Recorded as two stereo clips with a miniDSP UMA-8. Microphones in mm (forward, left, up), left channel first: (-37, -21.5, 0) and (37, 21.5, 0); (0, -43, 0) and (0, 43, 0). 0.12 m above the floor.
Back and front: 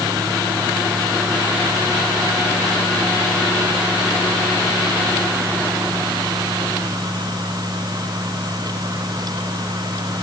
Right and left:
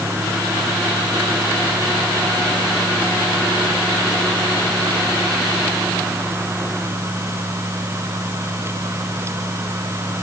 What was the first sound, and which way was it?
Only background noise.